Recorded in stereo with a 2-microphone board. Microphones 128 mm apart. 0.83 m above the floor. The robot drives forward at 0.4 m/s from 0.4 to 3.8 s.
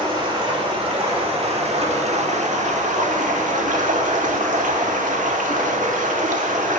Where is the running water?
40° right (ahead or behind), 1.7 m; by 6.8 s 85° right, 1.1 m.